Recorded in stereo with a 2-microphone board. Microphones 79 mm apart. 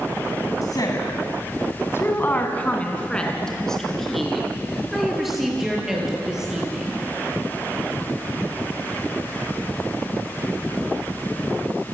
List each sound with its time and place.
0.6 s a woman speaking: 55° left (ahead or behind), 2.5 m; by 7.1 s 10° right (ahead or behind), 8 m